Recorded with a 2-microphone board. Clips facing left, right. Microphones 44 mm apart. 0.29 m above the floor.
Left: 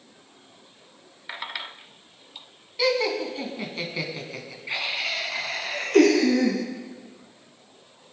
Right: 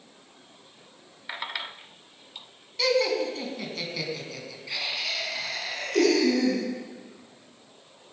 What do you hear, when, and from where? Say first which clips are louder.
2.8 s laughter: even; 10° left (ahead or behind), 2.5 m; by 6.6 s 45° left (ahead or behind), 3 m